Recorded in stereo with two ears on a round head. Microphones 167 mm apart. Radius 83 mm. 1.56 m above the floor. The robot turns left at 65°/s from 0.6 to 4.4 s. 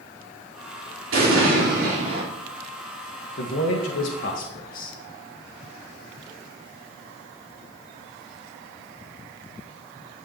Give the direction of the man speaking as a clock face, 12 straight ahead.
8 o'clock.